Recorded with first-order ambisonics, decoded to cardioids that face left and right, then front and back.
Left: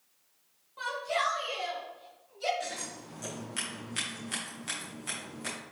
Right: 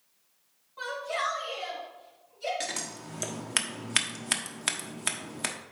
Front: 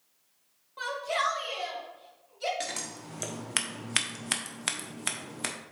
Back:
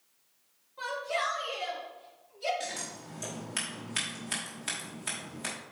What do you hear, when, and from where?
0.8 s a shout: 5° left, 2.5 m; by 2.5 s 25° left, 2.5 m
2.6 s scissors: 50° right, 1.0 m